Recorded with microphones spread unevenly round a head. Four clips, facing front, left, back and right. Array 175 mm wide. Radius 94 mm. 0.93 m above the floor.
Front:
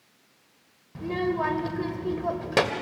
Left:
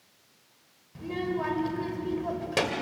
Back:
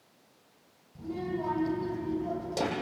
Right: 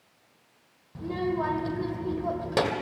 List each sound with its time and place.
0.9 s a child speaking: 5° right, 2 m